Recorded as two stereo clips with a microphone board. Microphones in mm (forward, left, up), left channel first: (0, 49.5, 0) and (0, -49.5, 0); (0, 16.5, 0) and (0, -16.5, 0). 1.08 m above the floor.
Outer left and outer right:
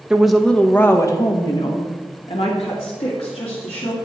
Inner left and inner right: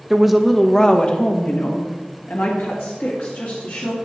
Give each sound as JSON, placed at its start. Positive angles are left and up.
{"t": 0.1, "sound": "a woman speaking", "side_deg": -10, "distance_m": 1.0}